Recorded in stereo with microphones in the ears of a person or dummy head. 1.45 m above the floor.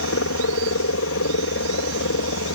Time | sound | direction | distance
0.0 | a helicopter | 60° left (ahead or behind) | ?